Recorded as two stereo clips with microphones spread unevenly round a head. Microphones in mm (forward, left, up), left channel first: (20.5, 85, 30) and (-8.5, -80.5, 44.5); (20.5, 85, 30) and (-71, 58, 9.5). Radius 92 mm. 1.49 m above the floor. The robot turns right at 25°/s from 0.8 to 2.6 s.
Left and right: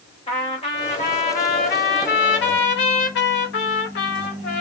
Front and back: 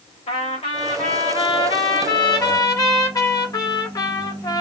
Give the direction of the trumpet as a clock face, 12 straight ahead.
11 o'clock.